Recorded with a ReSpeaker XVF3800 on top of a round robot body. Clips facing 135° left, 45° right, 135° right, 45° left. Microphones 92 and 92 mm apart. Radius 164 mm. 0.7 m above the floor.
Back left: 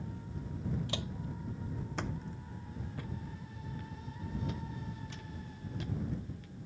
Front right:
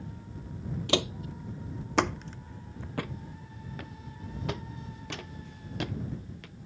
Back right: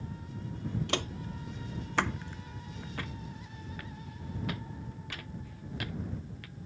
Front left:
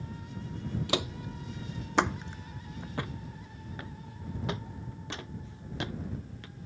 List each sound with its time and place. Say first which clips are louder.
0.9 s footsteps: front right 10 dB, front left 2 dB; 40° right; by 6.5 s 20° right